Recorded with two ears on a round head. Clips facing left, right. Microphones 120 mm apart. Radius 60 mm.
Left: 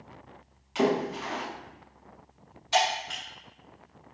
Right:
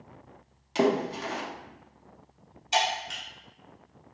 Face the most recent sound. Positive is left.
turn(degrees=-20)  # may be behind; listen again after turning